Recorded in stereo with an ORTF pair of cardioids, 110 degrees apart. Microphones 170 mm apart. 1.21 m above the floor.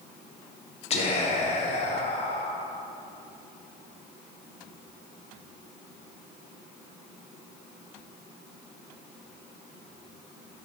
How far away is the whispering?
About 0.6 m.